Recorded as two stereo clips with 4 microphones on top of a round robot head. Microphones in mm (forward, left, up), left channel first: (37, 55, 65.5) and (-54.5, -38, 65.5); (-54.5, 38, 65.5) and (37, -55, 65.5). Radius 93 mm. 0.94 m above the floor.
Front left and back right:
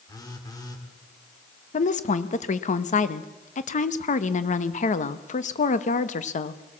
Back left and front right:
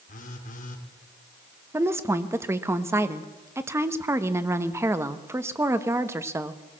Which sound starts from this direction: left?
A phone buzzing, at 0.1 s.